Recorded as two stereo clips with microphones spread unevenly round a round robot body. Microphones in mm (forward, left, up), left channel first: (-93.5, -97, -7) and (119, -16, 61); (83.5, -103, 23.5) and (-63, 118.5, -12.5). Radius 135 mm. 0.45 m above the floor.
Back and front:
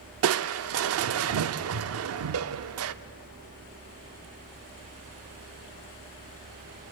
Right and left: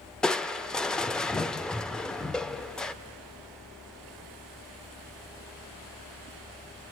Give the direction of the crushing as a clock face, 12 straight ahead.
11 o'clock.